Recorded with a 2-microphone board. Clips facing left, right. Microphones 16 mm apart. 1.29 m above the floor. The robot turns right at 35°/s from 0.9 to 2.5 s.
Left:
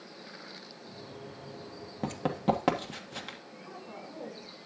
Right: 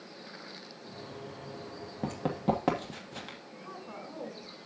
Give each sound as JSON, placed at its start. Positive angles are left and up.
{"t": 2.0, "sound": "running footsteps", "side_deg": 25, "distance_m": 1.5}
{"t": 3.6, "sound": "a woman speaking", "side_deg": -45, "distance_m": 6.5}